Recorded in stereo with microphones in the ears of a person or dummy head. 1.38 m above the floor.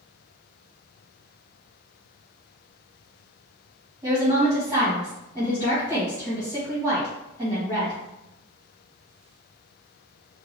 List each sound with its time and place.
4.0 s a woman speaking: 15° right (ahead or behind), 1.9 m